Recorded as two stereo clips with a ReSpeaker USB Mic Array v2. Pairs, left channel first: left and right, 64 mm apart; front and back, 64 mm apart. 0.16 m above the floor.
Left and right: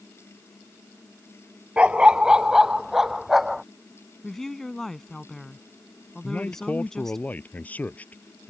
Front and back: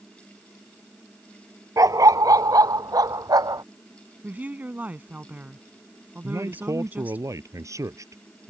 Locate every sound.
1.8 s a dog barking: 160° right; by 3.6 s 175° right
4.2 s a woman speaking: 165° left
6.2 s a man speaking: 155° left